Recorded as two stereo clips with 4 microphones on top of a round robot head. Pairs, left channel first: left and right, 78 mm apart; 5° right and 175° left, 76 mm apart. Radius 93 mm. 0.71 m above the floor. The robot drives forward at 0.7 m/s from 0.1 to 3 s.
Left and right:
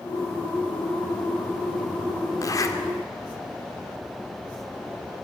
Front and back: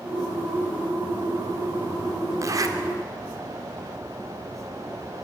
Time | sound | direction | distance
2.4 | a zipper | 130° left | 2.5 m